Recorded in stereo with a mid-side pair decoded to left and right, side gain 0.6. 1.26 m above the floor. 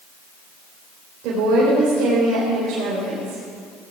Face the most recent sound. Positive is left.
turn(degrees=-70)